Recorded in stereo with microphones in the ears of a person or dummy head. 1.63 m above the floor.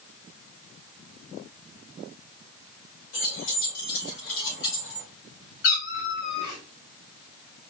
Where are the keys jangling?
80° left, 3.5 m; by 5.1 s 70° left (ahead or behind), 2.5 m.